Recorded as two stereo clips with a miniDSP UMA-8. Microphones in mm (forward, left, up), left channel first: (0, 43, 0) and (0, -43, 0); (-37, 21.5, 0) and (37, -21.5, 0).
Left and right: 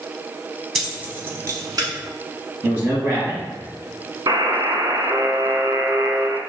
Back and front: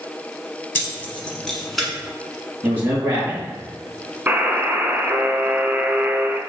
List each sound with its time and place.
0.8 s keys jangling: 175° right, 0.8 m; by 1.9 s 120° right, 1.2 m
2.6 s a man speaking: 50° right, 1.1 m
4.3 s a buzzer: 95° right, 0.6 m